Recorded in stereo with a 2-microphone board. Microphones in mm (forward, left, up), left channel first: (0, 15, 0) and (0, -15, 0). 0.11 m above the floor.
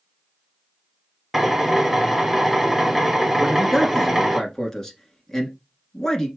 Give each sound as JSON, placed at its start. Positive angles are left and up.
{"t": 1.3, "sound": "a drill", "side_deg": 0, "distance_m": 1.1}
{"t": 3.4, "sound": "a man speaking", "side_deg": 15, "distance_m": 1.1}